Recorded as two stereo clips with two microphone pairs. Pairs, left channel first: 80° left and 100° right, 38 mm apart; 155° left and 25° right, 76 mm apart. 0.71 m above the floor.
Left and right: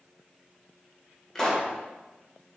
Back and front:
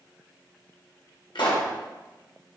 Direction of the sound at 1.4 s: 160° left.